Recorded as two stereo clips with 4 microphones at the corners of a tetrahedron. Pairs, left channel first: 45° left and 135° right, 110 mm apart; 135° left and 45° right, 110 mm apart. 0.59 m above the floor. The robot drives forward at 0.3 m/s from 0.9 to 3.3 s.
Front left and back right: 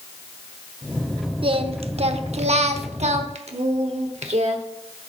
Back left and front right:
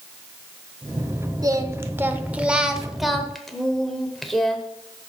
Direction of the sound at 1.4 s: 100° right.